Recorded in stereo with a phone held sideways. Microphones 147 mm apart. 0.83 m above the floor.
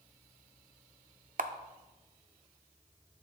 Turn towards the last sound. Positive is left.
turn(degrees=-70)  # may be behind; listen again after turning